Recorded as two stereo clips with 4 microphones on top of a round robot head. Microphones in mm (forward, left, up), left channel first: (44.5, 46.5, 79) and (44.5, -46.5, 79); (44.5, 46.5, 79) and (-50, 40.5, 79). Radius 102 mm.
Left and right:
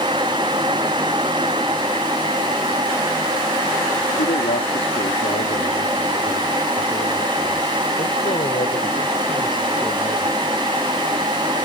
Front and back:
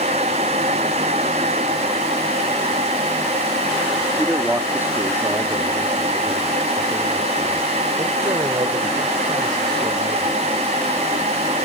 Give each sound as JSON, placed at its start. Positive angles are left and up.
{"t": 4.2, "sound": "a man speaking", "azimuth_deg": 105}